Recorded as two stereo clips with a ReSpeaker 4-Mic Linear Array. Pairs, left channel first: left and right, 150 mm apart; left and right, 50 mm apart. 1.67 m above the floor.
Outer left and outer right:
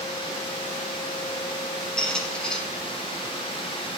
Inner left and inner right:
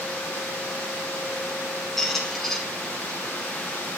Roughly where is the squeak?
Centre.